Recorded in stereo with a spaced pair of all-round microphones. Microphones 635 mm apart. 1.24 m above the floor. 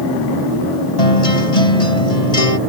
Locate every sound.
1.0 s a guitar: 75° left (ahead or behind)